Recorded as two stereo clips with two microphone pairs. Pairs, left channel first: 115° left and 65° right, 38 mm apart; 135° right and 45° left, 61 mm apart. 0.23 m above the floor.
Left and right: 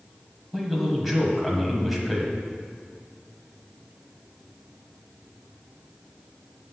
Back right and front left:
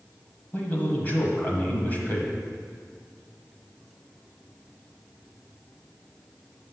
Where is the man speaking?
145° right, 1.4 m.